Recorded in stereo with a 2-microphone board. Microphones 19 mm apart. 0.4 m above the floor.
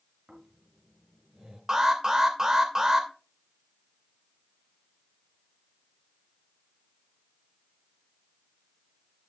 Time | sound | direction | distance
0.3 | snoring | 65° right (ahead or behind) | 4 m
1.7 | an alarm | 35° right (ahead or behind) | 2.5 m